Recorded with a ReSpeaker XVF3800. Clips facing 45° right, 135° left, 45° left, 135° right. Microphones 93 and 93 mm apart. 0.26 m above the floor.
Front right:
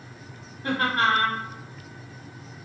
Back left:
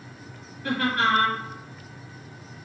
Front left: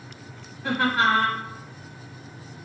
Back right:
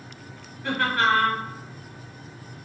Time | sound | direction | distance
0.6 | laughter | 20° right | 1.2 m